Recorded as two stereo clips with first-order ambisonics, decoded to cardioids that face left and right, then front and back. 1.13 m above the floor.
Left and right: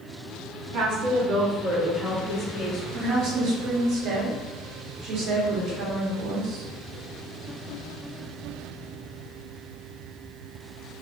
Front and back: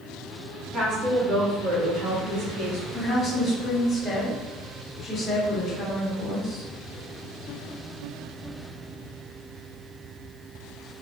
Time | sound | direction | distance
0.7 | a woman speaking | 115° right | 1.2 m
2.9 | a woman speaking | 75° right | 1.0 m